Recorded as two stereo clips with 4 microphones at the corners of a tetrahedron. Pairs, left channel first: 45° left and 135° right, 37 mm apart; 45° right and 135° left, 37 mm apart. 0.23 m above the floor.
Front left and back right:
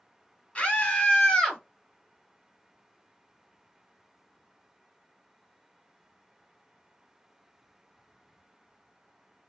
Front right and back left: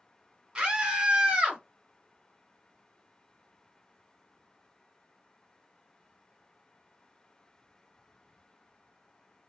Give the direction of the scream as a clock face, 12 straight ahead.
9 o'clock.